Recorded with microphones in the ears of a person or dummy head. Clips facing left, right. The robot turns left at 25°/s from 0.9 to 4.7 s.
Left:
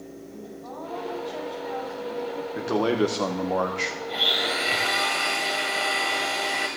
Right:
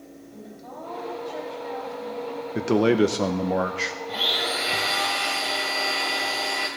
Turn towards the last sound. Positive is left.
turn(degrees=25)  # may be behind; listen again after turning